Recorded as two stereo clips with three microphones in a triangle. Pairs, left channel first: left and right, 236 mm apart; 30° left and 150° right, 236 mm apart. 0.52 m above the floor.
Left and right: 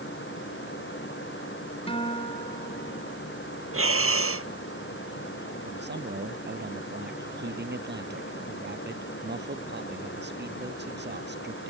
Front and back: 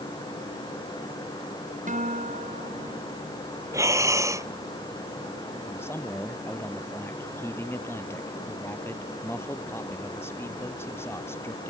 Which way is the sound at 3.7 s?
75° right.